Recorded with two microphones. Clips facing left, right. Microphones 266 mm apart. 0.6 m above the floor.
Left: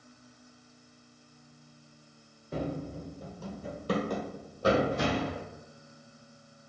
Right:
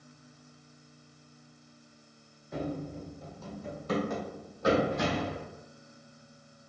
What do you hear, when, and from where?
2.5 s running footsteps: 35° left (ahead or behind), 0.6 m